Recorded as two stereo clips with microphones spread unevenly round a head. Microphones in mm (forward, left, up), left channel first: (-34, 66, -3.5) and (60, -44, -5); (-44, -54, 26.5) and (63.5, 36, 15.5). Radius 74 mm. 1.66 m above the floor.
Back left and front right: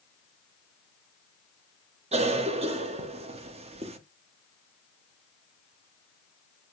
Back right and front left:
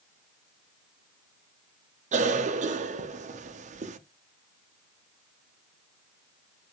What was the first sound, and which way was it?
A cough, straight ahead.